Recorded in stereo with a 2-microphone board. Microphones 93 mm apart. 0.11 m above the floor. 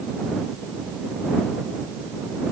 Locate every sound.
Only background noise.